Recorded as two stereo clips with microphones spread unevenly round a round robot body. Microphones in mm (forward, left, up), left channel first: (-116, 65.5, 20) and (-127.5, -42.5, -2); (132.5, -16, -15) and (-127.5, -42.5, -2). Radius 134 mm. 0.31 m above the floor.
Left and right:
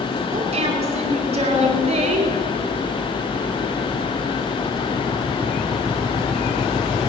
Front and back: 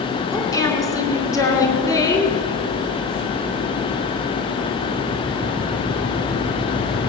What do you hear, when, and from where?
0.3 s a woman speaking: 70° right, 3 m